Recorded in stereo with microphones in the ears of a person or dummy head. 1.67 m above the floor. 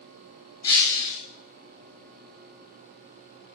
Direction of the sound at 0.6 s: 20° left (ahead or behind).